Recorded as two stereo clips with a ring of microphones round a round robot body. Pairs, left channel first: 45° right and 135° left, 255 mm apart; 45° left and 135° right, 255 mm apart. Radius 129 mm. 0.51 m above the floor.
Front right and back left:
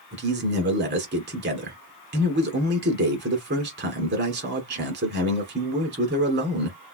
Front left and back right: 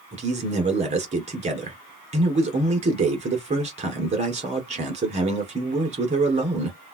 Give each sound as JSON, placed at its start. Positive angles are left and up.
{"t": 0.1, "sound": "a man speaking", "azimuth_deg": 170, "distance_m": 1.6}